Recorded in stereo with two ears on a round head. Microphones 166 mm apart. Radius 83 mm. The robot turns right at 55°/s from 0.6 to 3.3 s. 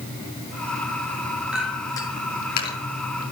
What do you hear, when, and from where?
1.5 s a clink: 5° right (ahead or behind), 4 m; by 2.8 s 60° left (ahead or behind), 4 m